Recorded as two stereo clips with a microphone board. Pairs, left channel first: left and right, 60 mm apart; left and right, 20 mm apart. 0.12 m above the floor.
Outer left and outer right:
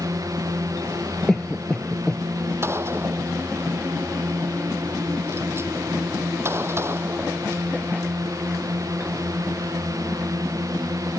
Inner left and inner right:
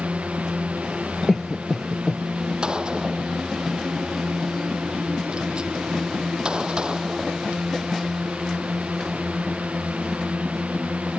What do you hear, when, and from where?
0.0 s a drone: 70° right (ahead or behind)
1.3 s a cough: 10° left (ahead or behind)
2.6 s a gunshot: 45° right (ahead or behind)